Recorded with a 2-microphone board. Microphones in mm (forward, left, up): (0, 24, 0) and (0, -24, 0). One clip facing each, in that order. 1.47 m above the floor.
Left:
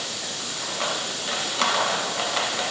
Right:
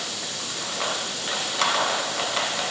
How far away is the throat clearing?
No throat clearing in this recording.